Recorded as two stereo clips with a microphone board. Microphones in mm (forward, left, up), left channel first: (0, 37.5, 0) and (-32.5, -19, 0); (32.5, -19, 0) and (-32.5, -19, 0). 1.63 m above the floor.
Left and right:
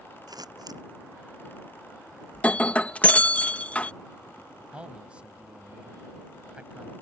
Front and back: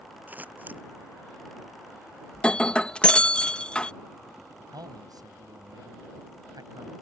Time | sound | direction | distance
0.3 | scissors | 115° right | ?
2.3 | breaking glass | 45° left | ?
4.7 | a man speaking | 165° left | ?